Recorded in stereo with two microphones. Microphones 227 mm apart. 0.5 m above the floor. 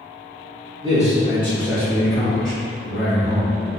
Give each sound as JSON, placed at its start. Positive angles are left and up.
{"t": 0.8, "sound": "a man speaking", "side_deg": -25, "distance_m": 1.2}